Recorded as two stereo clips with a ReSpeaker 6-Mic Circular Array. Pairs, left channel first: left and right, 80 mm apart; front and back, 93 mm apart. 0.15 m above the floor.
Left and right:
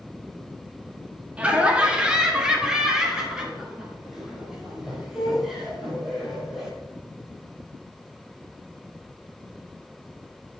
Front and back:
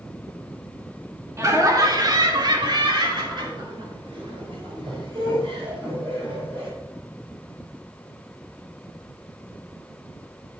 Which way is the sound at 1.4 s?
155° right.